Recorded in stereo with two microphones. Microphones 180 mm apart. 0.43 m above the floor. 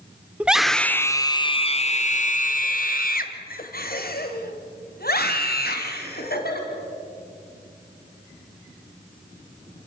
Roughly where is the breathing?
No breathing in this recording.